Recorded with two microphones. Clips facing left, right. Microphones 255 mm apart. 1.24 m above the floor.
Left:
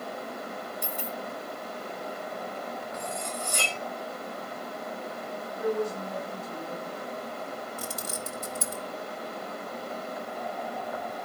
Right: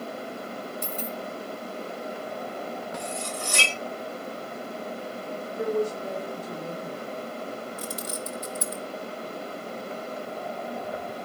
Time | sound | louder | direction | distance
0.8 | a dropped coin | right 3 dB | 10° left (ahead or behind) | 1.7 m
2.9 | cutlery clinking | right 2 dB | 80° right | 1.5 m
5.6 | a woman speaking | right 2 dB | 80° right | 5 m
7.8 | keys jangling | right 3 dB | 55° left (ahead or behind) | 1.4 m